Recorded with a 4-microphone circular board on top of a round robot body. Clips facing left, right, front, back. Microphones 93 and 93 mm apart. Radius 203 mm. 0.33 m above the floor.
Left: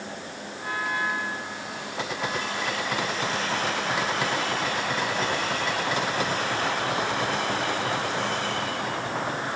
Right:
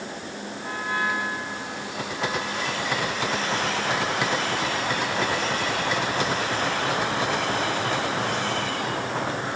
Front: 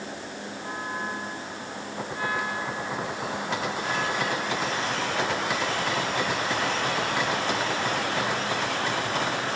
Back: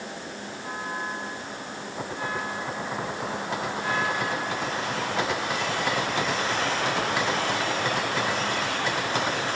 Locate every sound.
Only background noise.